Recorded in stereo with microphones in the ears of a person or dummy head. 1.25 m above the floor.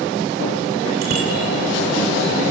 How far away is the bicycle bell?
About 3 m.